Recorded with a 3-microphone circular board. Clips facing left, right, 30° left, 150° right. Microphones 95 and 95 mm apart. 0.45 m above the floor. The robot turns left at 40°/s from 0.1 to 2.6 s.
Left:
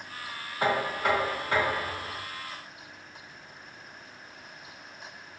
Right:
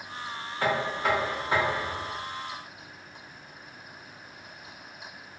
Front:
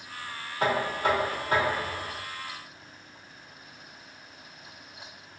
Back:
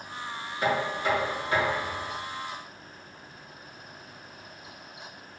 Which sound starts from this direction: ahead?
Knocking, at 0.6 s.